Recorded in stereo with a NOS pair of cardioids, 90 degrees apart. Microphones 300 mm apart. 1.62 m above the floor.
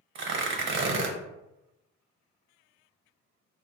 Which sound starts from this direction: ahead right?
Tearing paper, at 0.1 s.